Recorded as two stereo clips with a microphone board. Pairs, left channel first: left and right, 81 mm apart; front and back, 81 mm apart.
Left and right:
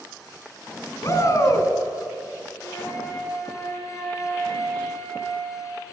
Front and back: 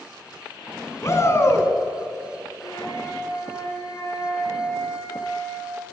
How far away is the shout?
About 3 m.